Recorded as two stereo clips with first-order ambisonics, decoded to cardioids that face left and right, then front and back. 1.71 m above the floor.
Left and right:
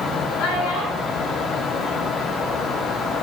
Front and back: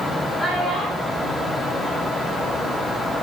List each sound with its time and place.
0.4 s a child speaking: 100° left, 7 m; by 2.7 s 120° left, 8.5 m